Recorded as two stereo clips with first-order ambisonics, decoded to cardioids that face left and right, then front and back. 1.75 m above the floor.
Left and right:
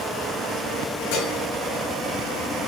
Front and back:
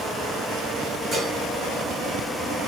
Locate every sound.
1.1 s dishes clattering: 110° left, 5.5 m